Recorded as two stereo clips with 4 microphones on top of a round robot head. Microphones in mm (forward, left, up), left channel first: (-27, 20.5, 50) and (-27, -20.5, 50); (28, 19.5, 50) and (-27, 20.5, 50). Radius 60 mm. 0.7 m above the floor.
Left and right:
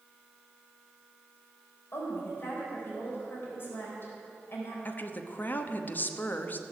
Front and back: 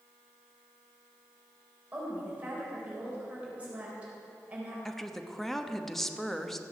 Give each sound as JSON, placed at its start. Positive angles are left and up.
{"t": 1.9, "sound": "a woman speaking", "azimuth_deg": 115, "distance_m": 4.0}
{"t": 4.8, "sound": "a woman speaking", "azimuth_deg": 80, "distance_m": 1.0}